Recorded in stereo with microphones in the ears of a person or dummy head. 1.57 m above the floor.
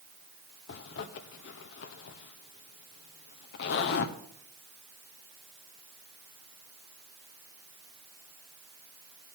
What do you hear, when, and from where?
0.7 s a zipper: 55° left (ahead or behind), 1.3 m